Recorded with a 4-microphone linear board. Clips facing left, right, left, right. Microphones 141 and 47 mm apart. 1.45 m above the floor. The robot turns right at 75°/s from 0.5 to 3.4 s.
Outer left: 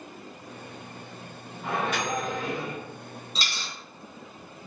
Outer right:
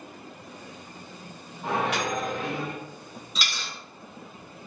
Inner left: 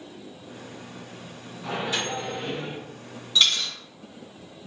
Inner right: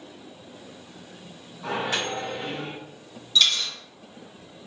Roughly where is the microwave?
Right.